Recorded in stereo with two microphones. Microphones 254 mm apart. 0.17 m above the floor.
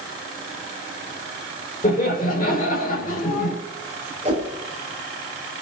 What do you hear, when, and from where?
1.8 s laughter: 35° left (ahead or behind), 5.5 m
4.2 s a whoosh: 25° right (ahead or behind), 6.5 m